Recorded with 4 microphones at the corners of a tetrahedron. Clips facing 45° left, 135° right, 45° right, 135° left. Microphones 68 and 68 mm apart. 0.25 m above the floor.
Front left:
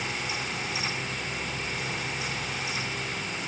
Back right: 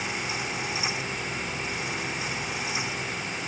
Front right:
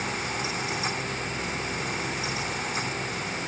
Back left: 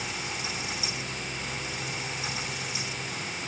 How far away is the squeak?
I don't hear a squeak.